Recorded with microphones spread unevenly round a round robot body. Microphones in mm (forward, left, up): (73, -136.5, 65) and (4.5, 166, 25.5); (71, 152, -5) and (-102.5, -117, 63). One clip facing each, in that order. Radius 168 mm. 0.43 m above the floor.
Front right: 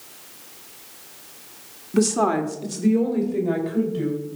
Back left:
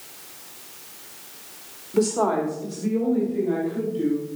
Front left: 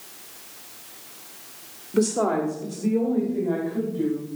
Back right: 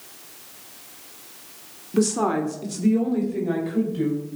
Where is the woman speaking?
30° right, 1.6 m; by 4.2 s 80° right, 4 m.